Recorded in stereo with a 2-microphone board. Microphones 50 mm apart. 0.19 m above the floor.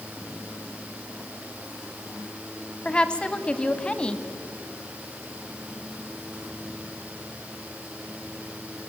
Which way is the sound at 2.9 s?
20° left (ahead or behind).